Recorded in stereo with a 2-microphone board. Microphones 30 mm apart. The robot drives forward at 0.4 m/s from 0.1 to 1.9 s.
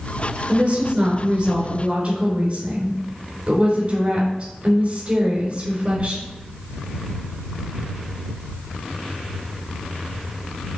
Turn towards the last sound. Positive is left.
turn(degrees=-35)  # may be behind; listen again after turning